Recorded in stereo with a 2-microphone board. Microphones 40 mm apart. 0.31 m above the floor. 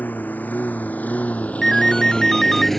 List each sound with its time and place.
0.0 s a lawn mower: 50° left (ahead or behind); by 2.8 s 5° left (ahead or behind)
1.6 s a ringtone: 5° left (ahead or behind)